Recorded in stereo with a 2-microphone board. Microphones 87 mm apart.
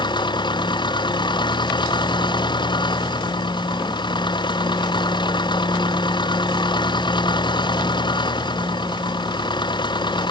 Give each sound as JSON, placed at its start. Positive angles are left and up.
{"t": 0.0, "sound": "an engine running", "side_deg": 60}